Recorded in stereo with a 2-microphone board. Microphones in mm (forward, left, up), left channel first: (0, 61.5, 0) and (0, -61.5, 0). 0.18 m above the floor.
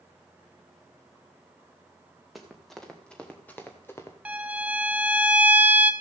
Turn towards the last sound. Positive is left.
turn(degrees=-10)  # may be behind; listen again after turning